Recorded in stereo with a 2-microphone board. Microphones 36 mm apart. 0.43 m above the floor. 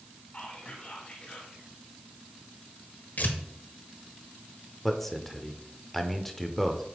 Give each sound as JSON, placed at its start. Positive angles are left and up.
{"t": 0.3, "sound": "whispering", "side_deg": 35, "distance_m": 1.6}
{"t": 3.2, "sound": "tearing paper", "side_deg": 55, "distance_m": 1.2}
{"t": 4.8, "sound": "a man speaking", "side_deg": 5, "distance_m": 1.0}